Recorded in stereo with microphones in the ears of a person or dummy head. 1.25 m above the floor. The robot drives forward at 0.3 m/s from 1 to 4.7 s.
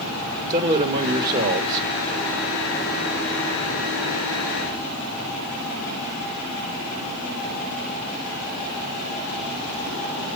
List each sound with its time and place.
0.5 s a man speaking: 30° right (ahead or behind), 1.8 m; by 1.9 s 35° right (ahead or behind), 1.6 m